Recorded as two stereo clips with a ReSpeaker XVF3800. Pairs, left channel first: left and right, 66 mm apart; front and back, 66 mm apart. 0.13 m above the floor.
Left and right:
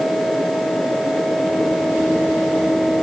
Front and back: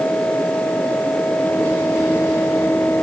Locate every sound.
Only background noise.